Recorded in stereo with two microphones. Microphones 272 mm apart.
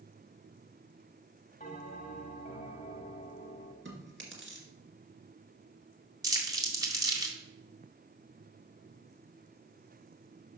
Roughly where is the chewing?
Right.